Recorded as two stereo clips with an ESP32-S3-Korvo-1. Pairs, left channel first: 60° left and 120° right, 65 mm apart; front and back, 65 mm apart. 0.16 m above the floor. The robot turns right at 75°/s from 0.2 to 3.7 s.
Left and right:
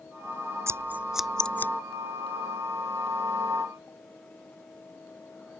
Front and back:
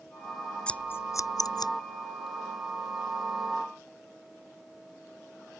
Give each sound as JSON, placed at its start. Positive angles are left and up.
{"t": 0.7, "sound": "scissors", "azimuth_deg": -75}